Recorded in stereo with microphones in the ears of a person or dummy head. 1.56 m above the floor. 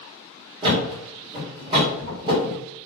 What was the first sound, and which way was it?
A thud, 30° right (ahead or behind).